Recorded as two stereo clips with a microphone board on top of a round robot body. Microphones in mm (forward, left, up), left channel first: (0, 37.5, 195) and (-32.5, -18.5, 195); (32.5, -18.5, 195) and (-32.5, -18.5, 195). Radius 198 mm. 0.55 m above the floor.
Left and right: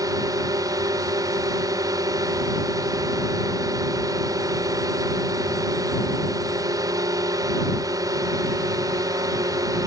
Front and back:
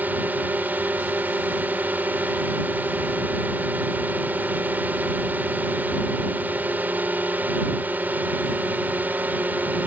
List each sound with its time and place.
0.0 s a drone: 120° right